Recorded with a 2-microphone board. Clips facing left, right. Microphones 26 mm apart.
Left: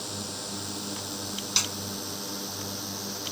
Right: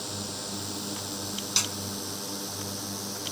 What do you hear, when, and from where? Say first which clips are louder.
0.0 s a drone: even; 5° left (ahead or behind); by 3.3 s 20° left (ahead or behind)
1.6 s a snare drum: left 1 dB; 10° left (ahead or behind)